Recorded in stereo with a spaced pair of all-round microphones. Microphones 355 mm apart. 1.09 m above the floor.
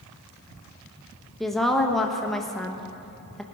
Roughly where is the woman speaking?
Centre.